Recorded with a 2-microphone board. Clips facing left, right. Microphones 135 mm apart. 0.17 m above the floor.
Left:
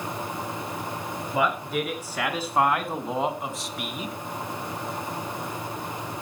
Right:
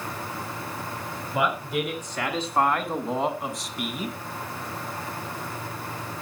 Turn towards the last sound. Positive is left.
turn(degrees=0)  # may be behind; listen again after turning